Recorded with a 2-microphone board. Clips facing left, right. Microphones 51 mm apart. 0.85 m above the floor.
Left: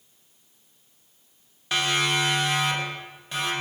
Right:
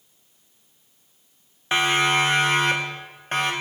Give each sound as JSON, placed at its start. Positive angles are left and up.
{"t": 1.7, "sound": "a siren", "side_deg": -25, "distance_m": 2.5}